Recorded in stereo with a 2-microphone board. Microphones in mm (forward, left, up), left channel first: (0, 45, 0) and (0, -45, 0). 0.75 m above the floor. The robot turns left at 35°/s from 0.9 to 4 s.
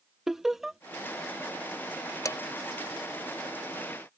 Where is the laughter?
Centre (ahead or behind).